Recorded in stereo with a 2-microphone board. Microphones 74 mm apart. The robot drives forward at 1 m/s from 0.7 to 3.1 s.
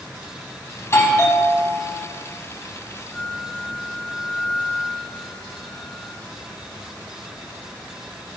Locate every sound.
0.8 s a doorbell: 40° left (ahead or behind), 1.8 m; by 2.1 s 25° left (ahead or behind), 2.5 m
3.1 s a flute: 15° left (ahead or behind), 0.8 m